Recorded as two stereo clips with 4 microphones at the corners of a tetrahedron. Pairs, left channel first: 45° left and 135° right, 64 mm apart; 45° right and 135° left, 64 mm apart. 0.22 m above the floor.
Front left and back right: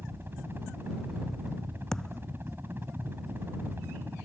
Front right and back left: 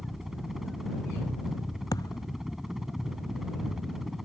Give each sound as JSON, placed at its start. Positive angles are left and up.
{"t": 0.0, "sound": "a helicopter", "azimuth_deg": -145}
{"t": 1.9, "sound": "a thud", "azimuth_deg": -35}